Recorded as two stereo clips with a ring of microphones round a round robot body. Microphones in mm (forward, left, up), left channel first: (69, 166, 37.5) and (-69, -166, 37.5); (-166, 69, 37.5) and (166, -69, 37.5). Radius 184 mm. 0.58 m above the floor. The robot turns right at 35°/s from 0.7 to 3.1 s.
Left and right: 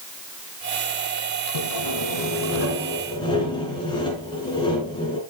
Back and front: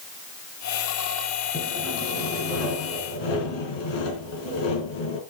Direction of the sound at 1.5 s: 90° left.